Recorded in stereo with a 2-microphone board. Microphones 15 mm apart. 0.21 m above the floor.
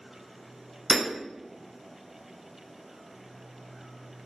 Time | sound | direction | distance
0.9 | hammering | 55° left (ahead or behind) | 1.1 m